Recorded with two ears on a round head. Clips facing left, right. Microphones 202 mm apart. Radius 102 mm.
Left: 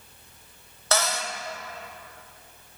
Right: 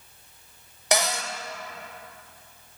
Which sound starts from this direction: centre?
A cupboard door, at 0.9 s.